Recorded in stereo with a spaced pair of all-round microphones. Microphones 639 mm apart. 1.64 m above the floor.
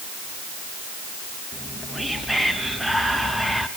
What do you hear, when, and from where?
1.5 s whispering: centre (ahead or behind), 0.7 m